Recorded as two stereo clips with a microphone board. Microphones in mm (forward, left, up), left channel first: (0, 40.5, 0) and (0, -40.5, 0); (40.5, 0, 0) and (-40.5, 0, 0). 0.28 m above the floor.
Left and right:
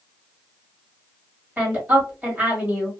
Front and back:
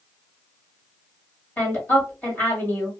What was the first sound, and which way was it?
A woman speaking, 35° right.